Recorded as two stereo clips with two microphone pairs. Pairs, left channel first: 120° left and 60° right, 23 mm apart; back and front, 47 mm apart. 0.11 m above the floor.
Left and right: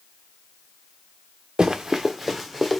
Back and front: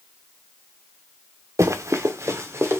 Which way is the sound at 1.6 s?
5° right.